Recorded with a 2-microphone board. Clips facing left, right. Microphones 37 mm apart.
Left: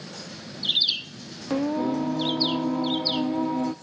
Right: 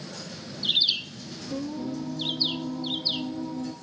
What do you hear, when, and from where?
1.5 s singing: 50° left (ahead or behind), 0.6 m